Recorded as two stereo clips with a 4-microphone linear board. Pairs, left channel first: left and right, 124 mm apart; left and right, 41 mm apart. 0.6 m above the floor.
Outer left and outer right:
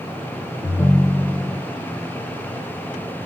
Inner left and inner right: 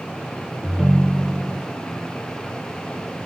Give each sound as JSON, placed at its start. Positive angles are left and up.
{"t": 0.6, "sound": "a ringtone", "side_deg": 35, "distance_m": 0.7}